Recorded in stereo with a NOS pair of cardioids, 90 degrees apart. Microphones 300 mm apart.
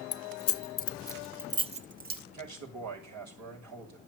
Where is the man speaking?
65° right, 6.5 m.